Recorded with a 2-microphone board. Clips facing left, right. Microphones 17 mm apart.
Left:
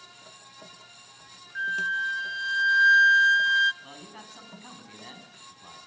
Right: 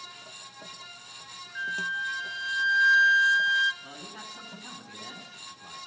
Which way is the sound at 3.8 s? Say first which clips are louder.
Right 3 dB; 10° left (ahead or behind).